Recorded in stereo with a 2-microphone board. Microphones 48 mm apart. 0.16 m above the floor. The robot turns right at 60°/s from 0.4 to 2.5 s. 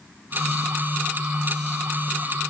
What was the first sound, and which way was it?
Only background noise.